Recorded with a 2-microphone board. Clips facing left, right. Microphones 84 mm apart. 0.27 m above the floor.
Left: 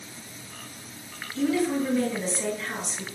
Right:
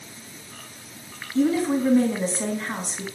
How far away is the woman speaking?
About 2.5 m.